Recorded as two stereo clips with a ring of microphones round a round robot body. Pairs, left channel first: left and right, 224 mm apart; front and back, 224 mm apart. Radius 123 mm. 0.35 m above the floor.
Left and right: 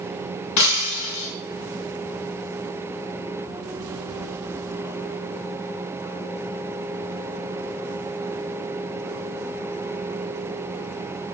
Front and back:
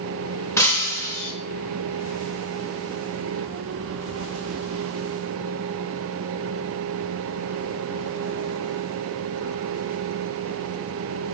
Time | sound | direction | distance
0.6 | breaking glass | 80° left | 2.5 m